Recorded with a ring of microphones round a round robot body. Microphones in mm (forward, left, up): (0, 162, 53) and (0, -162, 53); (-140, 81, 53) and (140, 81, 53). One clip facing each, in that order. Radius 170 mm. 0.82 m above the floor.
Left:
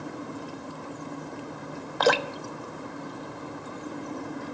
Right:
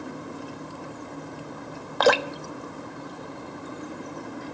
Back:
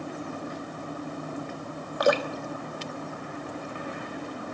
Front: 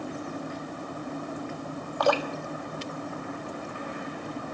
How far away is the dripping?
About 1.0 m.